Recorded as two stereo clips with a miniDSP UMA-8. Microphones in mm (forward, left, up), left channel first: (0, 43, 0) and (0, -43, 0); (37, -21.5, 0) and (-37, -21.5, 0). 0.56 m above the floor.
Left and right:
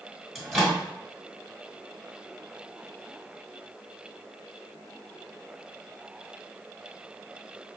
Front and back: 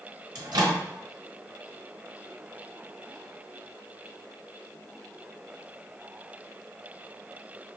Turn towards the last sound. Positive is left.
turn(degrees=-175)